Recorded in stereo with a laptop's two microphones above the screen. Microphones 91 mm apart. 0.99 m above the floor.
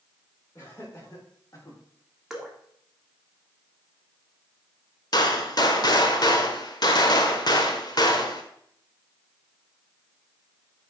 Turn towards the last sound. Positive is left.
turn(degrees=50)  # may be behind; listen again after turning